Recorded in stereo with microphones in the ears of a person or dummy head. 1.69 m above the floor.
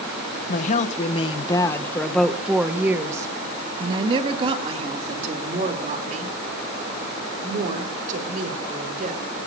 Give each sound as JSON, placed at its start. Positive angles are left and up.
{"t": 0.5, "sound": "a woman speaking", "side_deg": 55, "distance_m": 1.5}